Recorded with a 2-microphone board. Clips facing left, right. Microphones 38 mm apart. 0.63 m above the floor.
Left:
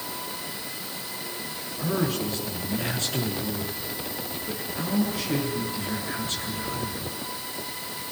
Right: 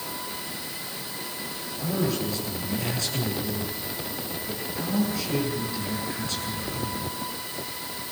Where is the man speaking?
40° left (ahead or behind), 8.5 m.